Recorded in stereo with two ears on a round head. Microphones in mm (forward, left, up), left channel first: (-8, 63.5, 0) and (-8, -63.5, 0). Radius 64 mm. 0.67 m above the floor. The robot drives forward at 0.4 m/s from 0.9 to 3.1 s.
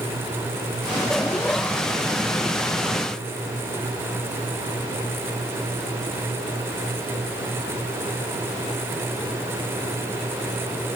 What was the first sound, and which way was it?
Only background noise.